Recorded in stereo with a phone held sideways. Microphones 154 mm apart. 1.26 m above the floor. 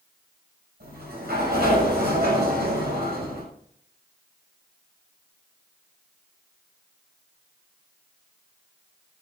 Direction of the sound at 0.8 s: 80° right.